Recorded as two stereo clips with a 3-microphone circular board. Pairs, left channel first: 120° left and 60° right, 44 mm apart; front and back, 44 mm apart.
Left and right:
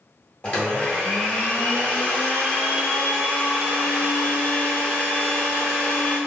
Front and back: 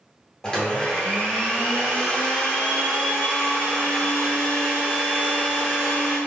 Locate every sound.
0.4 s a blender: 65° left, 0.9 m